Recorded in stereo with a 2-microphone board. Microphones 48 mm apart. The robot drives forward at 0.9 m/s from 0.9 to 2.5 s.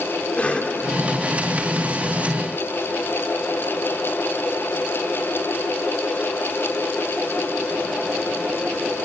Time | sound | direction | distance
0.4 | a cough | 25° left (ahead or behind) | 1.8 m